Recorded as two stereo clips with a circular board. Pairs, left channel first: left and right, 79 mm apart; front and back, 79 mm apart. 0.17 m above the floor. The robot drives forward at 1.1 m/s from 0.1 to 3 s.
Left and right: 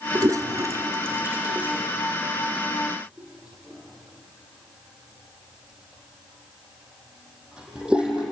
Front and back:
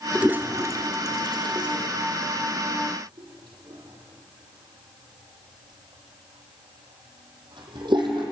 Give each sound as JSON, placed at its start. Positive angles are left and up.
{"t": 0.1, "sound": "a toilet flushing", "azimuth_deg": -105, "distance_m": 0.9}